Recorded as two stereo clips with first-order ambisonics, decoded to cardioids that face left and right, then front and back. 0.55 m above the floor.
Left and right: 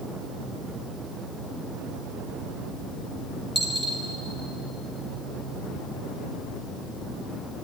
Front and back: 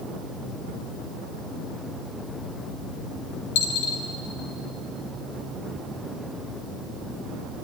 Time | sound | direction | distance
3.5 | a dropped coin | straight ahead | 3.5 m